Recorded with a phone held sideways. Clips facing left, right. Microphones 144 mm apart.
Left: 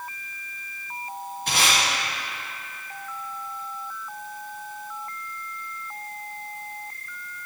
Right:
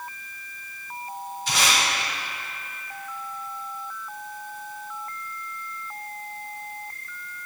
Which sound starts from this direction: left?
Tape being pulled, at 1.5 s.